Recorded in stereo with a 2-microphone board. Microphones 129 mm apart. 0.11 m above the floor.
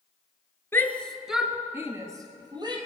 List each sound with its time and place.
0.7 s a shout: 20° left (ahead or behind), 1.4 m; by 2.8 s 35° right (ahead or behind), 2.5 m